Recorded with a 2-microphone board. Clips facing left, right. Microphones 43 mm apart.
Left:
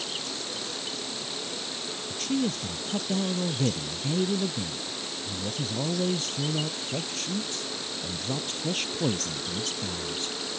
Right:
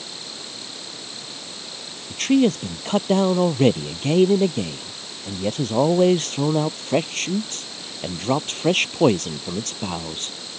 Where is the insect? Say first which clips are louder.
Left 2 dB; 75° left (ahead or behind).